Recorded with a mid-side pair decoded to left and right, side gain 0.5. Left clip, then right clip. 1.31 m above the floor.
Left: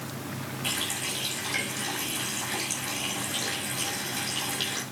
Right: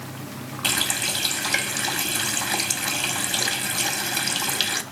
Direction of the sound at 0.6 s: 60° right.